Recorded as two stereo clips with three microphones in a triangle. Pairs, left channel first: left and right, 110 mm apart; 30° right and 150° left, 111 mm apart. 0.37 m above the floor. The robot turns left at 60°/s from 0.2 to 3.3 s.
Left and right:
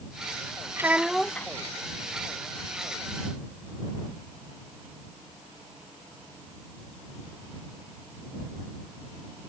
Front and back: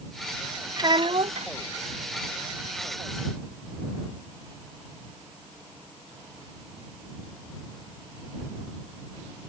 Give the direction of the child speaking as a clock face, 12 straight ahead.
5 o'clock.